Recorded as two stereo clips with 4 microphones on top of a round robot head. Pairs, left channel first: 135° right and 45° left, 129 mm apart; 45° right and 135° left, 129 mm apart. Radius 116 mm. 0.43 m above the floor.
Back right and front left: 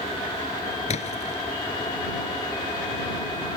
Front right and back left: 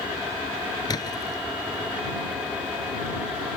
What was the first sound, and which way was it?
A splash, 105° right.